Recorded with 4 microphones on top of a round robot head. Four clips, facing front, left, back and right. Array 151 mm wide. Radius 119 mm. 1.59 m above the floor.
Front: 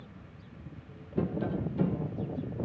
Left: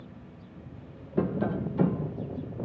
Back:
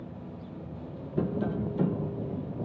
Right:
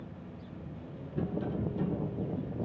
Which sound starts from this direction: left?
Tapping, at 1.2 s.